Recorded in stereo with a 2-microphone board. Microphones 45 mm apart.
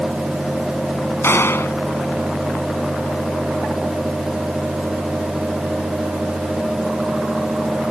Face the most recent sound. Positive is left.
turn(degrees=60)  # may be behind; listen again after turning